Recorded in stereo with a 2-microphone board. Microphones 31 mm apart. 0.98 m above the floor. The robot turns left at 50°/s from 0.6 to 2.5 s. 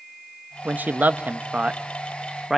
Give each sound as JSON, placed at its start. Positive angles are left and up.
{"t": 0.7, "sound": "a man speaking", "side_deg": -70, "distance_m": 0.9}